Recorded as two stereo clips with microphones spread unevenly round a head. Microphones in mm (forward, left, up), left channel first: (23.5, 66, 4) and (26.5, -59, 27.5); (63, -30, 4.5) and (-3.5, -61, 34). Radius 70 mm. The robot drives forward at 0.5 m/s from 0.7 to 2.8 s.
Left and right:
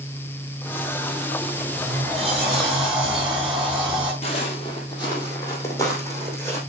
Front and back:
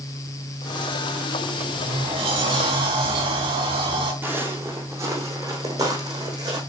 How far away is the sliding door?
About 2.5 m.